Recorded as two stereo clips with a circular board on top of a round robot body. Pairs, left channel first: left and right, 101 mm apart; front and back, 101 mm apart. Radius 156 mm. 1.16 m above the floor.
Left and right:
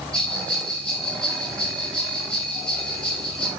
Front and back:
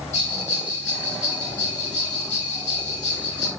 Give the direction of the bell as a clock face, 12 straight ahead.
12 o'clock.